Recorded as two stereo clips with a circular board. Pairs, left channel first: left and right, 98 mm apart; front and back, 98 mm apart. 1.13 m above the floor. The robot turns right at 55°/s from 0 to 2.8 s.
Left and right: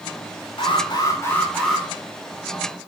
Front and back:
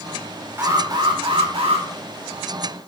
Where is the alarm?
115° left, 3.5 m; by 1.9 s 175° right, 3.5 m.